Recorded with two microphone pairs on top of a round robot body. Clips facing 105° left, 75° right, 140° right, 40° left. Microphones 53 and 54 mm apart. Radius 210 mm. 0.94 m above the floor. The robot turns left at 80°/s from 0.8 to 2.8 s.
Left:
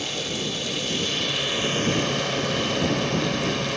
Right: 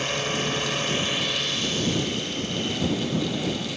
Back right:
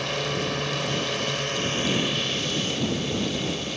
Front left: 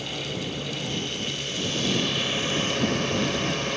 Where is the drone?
125° right; by 3.8 s 75° left.